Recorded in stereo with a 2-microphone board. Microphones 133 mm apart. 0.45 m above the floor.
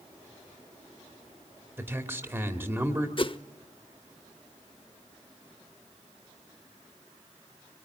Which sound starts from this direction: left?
A whoosh, at 3.2 s.